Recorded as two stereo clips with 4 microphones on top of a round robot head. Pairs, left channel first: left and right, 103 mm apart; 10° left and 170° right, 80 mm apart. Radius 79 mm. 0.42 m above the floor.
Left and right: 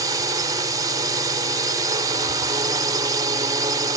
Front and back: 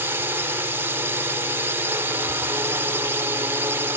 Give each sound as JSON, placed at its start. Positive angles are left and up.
{"t": 0.0, "sound": "a drone", "azimuth_deg": -125}